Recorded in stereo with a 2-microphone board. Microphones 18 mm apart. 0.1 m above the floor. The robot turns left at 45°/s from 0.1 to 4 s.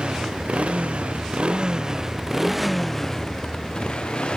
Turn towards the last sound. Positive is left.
turn(degrees=125)